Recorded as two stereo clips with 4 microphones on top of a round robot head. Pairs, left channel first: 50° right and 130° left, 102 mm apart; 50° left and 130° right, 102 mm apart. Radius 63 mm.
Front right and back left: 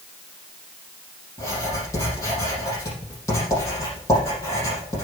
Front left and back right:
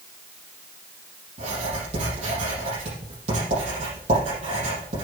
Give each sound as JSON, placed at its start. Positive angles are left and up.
{"t": 1.4, "sound": "writing", "azimuth_deg": -110, "distance_m": 5.5}